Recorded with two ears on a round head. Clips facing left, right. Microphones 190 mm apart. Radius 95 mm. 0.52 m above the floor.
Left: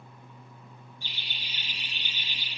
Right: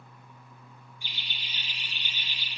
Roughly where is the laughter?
Centre.